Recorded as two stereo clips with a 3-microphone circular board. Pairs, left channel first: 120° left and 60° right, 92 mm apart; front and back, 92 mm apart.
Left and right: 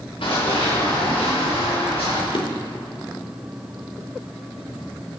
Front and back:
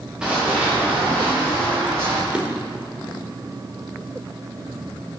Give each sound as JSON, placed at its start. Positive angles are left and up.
{"t": 0.2, "sound": "running footsteps", "azimuth_deg": 100, "distance_m": 4.0}
{"t": 2.3, "sound": "a drawer", "azimuth_deg": 105, "distance_m": 1.1}